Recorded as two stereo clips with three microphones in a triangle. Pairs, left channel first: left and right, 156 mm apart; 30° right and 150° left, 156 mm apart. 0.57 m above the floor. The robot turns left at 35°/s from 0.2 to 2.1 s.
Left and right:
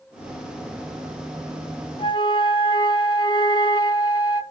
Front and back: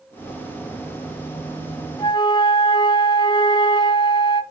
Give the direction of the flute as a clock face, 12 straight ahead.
11 o'clock.